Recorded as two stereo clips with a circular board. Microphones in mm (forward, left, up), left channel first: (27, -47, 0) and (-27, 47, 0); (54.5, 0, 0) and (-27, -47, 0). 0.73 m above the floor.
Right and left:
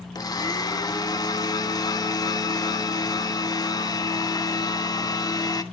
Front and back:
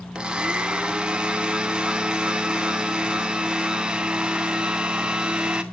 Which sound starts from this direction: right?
A blender, at 0.1 s.